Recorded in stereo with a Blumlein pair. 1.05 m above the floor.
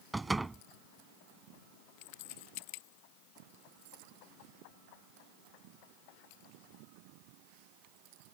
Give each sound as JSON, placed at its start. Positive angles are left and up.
{"t": 0.1, "sound": "a door slam", "azimuth_deg": -5}